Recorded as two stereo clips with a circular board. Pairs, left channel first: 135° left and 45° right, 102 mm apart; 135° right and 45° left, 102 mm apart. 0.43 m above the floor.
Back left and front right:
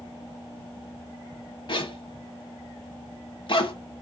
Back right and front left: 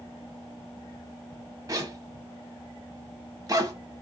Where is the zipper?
100° left, 0.9 m.